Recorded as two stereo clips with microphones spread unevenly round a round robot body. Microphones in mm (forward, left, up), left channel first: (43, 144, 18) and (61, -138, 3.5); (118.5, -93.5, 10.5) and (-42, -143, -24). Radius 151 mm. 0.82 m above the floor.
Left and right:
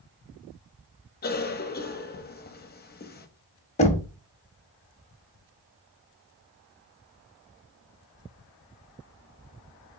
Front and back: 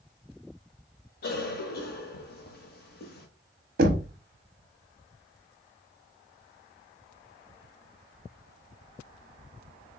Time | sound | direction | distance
1.2 | a cough | 45° left | 1.1 m
3.8 | knocking | 165° left | 0.6 m